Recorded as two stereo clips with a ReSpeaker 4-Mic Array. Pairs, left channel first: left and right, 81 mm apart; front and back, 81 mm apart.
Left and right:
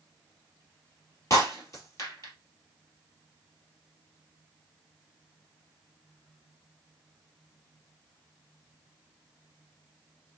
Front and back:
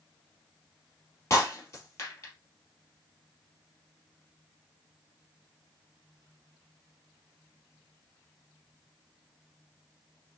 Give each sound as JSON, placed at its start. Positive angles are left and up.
{"t": 1.3, "sound": "breaking glass", "azimuth_deg": 50, "distance_m": 2.5}